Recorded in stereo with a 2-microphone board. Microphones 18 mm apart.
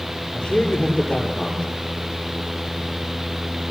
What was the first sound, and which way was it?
A man speaking, 80° left.